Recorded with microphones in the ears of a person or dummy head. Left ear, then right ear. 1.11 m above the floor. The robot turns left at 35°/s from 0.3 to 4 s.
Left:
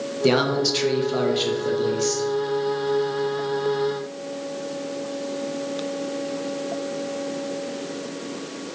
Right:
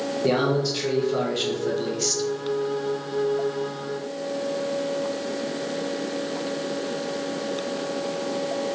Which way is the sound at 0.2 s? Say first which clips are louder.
Left 3 dB; 50° left.